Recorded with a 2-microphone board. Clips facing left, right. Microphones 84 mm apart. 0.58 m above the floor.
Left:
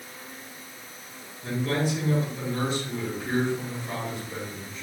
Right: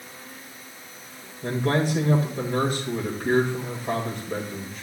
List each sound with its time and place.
1.4 s a man speaking: 55° right (ahead or behind), 2.5 m